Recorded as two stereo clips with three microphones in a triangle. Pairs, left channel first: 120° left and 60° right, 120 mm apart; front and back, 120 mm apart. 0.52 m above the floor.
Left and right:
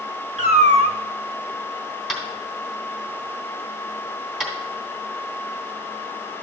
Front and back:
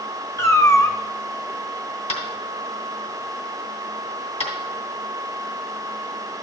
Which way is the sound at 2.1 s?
25° left.